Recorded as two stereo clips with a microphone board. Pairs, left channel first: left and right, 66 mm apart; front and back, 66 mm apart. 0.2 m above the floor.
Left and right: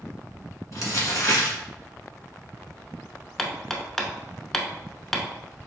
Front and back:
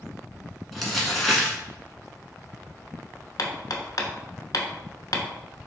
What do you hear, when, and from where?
0.7 s crumpling: 85° left, 1.2 m
3.4 s hammering: 10° left, 0.6 m